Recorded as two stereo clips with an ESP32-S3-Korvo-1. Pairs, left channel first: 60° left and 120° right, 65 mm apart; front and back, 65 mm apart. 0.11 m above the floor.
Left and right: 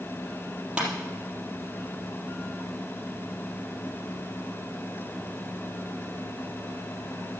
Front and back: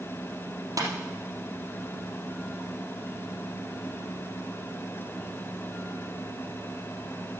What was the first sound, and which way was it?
Tapping, 165° left.